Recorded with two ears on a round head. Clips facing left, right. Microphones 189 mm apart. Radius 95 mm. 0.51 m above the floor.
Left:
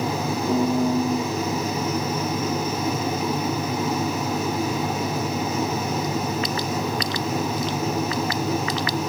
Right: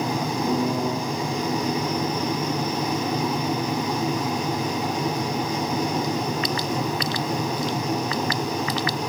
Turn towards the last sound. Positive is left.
turn(degrees=-10)  # may be behind; listen again after turning